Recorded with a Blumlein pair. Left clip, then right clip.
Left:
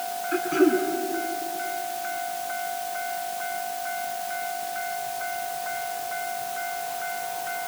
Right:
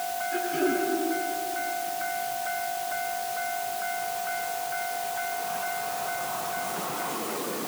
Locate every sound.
0.3 s throat clearing: 35° left, 4.5 m